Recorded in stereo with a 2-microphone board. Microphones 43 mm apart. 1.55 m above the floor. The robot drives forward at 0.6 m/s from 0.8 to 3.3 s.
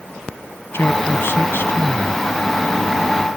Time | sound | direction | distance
0.7 | a man speaking | 60° left (ahead or behind) | ?